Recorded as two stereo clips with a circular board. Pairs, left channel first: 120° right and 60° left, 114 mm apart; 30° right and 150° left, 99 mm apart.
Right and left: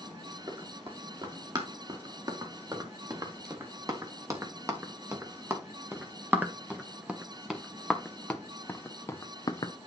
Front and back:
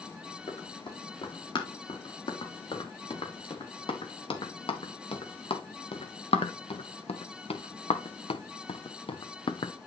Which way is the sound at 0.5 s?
10° left.